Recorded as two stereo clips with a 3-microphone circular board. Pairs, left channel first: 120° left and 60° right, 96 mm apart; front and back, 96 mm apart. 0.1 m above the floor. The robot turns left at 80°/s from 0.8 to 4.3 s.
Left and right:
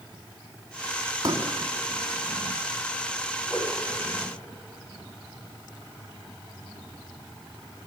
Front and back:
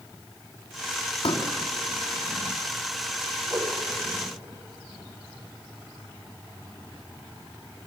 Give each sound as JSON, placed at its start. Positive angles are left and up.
{"t": 1.2, "sound": "a pop", "azimuth_deg": -10, "distance_m": 3.5}
{"t": 3.5, "sound": "a whoosh", "azimuth_deg": -130, "distance_m": 6.0}